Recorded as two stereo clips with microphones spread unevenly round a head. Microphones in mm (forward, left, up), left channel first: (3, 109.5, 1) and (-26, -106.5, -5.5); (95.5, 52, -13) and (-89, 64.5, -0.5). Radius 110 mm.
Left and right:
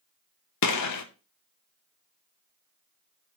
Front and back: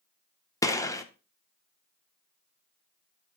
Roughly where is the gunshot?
Left.